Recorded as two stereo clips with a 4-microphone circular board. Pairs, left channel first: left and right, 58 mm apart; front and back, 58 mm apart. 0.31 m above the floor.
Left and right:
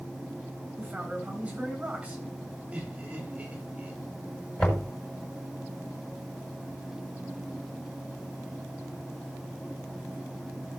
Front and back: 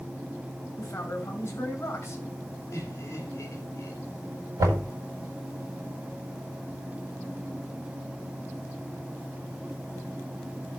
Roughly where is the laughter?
Ahead right.